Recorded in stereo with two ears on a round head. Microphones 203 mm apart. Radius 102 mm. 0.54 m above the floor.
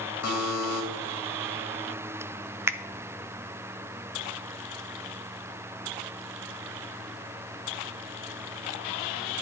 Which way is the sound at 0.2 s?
75° left (ahead or behind).